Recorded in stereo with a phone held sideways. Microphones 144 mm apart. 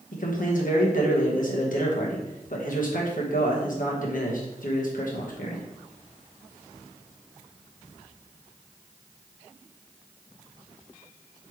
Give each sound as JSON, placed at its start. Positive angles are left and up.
{"t": 0.1, "sound": "a man speaking", "side_deg": 70, "distance_m": 1.1}